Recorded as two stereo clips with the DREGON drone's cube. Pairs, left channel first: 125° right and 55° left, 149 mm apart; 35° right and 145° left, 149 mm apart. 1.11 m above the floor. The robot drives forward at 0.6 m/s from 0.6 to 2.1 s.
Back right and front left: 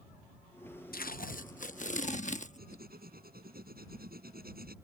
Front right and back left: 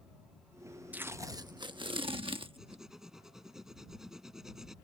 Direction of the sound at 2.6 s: 60° left.